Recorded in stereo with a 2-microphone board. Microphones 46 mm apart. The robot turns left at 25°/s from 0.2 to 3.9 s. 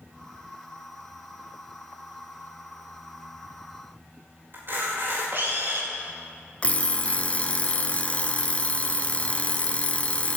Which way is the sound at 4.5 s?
60° right (ahead or behind).